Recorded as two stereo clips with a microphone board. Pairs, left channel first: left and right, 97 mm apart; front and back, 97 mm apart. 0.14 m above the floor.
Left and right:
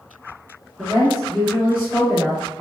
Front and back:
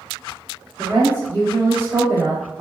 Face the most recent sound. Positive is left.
turn(degrees=-150)